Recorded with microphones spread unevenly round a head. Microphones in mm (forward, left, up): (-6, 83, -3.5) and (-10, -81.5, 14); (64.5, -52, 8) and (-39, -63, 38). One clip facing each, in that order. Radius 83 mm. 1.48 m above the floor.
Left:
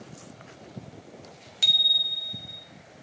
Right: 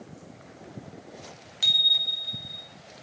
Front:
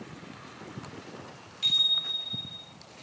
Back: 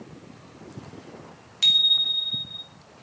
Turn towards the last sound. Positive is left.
turn(degrees=160)